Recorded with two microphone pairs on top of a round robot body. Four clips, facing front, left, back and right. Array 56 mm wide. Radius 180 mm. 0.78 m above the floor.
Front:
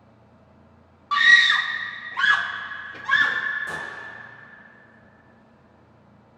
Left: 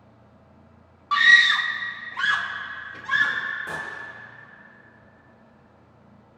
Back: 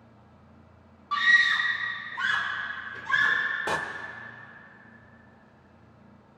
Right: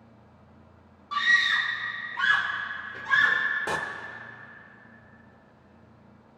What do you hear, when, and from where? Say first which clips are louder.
1.1 s a scream: left 7 dB, front 6 dB; 65° left, 0.7 m; by 3.4 s 10° left, 1.5 m
3.7 s a door slam: right 3 dB, back 4 dB; 150° right, 0.8 m